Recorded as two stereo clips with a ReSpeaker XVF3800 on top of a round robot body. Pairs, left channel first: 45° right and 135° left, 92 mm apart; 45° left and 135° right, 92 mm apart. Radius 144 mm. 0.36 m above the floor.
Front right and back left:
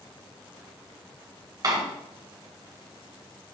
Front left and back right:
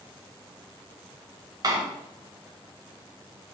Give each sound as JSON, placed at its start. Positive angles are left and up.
{"t": 1.6, "sound": "a door slam", "azimuth_deg": 180, "distance_m": 1.7}